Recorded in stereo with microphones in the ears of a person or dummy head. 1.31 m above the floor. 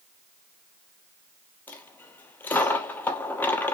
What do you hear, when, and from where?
1.7 s a dropped coin: 10° left (ahead or behind), 1.1 m